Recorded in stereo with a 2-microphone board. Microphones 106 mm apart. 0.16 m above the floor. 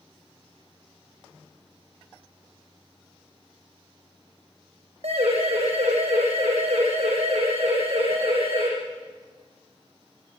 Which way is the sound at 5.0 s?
80° right.